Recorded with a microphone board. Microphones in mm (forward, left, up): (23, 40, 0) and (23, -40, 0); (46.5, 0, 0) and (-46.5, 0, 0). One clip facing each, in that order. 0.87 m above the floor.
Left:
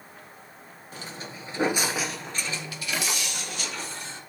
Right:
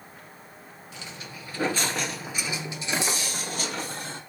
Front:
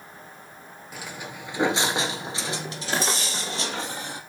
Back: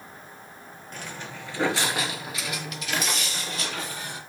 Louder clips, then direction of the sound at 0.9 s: Left 3 dB, front 1 dB; 80° left.